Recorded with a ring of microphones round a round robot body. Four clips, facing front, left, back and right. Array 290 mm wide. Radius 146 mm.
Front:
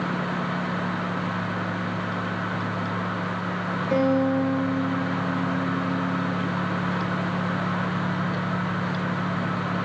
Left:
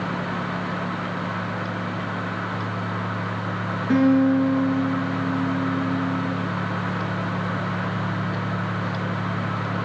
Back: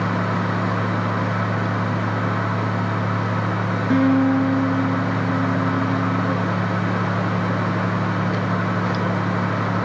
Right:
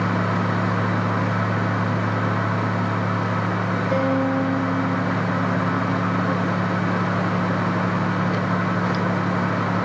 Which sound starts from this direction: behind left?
A guitar, at 3.9 s.